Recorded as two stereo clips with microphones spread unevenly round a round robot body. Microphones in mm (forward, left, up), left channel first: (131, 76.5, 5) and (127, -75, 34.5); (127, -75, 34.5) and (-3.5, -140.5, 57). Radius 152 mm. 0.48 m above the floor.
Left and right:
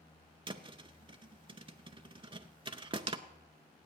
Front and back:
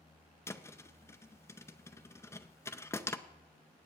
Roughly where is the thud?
Ahead right.